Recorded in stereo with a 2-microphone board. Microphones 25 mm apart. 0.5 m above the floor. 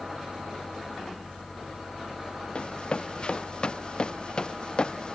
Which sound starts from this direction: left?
Running footsteps, at 2.5 s.